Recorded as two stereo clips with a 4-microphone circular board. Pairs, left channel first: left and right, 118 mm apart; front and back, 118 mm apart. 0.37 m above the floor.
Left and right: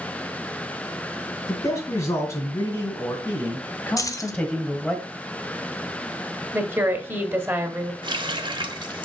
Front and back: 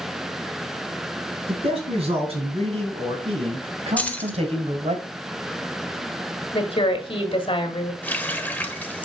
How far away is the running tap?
About 1.0 m.